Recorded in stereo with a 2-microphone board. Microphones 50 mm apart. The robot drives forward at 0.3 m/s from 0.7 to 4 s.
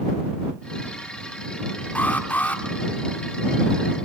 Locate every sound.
1.9 s an alarm: 40° left (ahead or behind), 2 m